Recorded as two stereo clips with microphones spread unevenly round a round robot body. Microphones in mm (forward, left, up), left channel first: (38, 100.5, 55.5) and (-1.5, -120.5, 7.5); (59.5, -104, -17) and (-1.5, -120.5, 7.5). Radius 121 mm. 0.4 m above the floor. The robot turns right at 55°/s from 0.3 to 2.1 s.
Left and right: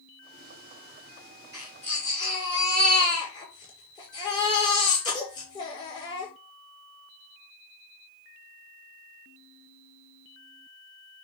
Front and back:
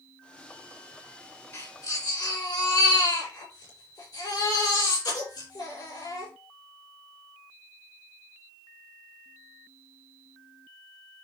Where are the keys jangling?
No keys jangling in this recording.